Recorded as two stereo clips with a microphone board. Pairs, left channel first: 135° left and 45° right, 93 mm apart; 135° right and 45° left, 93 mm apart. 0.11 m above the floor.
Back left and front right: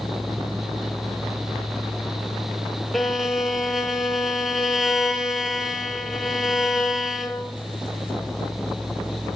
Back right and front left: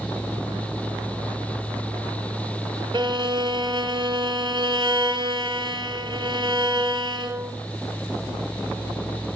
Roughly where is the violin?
Ahead left.